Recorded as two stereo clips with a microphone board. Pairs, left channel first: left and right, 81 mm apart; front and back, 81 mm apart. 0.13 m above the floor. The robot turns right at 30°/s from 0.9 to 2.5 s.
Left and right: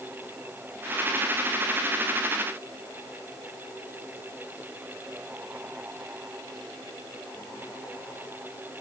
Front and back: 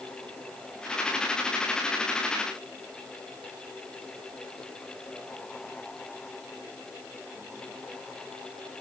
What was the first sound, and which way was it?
Only background noise.